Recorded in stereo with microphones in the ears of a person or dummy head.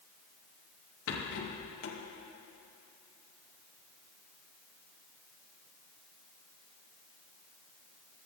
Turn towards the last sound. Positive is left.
turn(degrees=70)  # may be behind; listen again after turning